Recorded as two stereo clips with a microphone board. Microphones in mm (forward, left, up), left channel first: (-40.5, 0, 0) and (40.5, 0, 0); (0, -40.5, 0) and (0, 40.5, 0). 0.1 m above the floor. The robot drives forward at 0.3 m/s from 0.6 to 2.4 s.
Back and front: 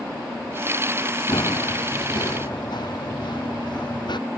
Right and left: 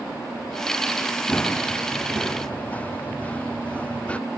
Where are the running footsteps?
160° right; by 4.2 s 165° right.